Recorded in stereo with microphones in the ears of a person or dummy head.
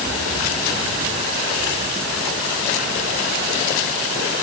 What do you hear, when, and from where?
Only background noise.